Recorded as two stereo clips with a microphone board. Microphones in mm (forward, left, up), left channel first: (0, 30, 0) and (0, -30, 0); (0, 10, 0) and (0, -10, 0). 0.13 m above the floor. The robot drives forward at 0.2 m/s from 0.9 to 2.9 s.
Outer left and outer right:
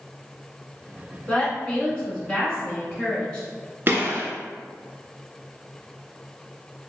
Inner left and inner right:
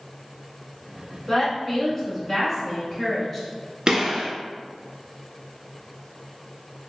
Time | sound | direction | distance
1.3 | a woman speaking | 20° left (ahead or behind) | 1.1 m
3.9 | a gunshot | 40° right (ahead or behind) | 0.8 m